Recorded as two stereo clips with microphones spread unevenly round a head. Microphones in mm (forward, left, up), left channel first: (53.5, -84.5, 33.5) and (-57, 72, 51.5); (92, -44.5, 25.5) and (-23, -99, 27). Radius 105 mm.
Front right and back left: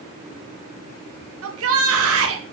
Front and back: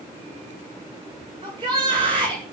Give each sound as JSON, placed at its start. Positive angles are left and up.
{"t": 1.4, "sound": "a shout", "azimuth_deg": 135, "distance_m": 2.5}